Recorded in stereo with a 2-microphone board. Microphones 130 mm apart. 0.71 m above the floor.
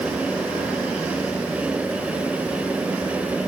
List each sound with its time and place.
Only background noise.